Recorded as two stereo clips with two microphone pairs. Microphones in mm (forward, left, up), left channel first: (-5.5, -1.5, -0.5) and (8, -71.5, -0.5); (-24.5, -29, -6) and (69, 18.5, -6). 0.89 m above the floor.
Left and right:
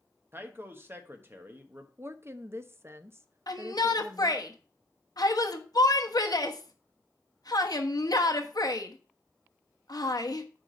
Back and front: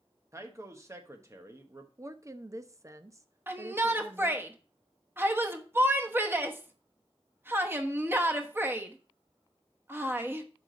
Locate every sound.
0.3 s a man speaking: 30° right, 1.1 m
2.0 s a woman speaking: 30° right, 0.6 m
3.5 s a shout: 90° left, 1.0 m